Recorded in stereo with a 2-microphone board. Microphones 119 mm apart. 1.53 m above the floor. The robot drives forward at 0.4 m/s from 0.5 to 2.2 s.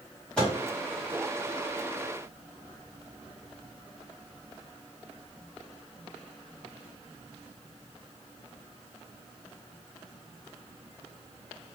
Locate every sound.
0.4 s a microwave: 10° left (ahead or behind), 1.7 m